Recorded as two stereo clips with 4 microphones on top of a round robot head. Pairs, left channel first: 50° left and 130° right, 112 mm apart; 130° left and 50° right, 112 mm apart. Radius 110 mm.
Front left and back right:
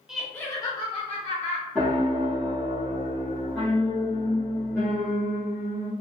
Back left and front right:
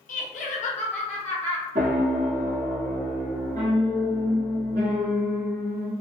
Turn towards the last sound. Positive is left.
turn(degrees=-35)